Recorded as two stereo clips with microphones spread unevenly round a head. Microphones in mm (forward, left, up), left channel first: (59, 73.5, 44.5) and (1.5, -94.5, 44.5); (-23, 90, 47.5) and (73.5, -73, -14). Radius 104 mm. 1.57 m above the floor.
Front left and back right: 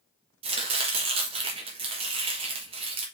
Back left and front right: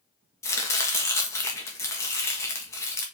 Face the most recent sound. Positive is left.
turn(degrees=-175)